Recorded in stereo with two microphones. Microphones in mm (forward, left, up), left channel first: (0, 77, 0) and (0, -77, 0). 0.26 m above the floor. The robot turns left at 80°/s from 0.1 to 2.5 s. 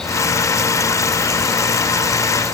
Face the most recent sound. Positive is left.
No sound to turn to.